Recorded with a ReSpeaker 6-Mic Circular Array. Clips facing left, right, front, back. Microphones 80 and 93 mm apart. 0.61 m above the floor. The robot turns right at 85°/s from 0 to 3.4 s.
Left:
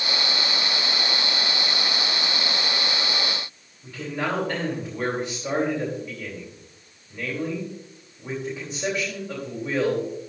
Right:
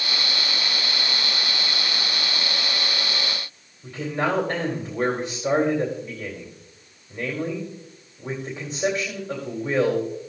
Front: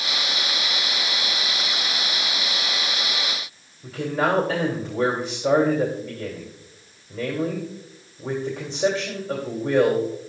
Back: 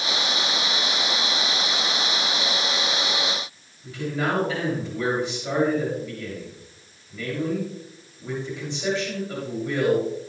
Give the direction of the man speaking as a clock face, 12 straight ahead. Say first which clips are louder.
Right 3 dB, front 3 dB; 1 o'clock.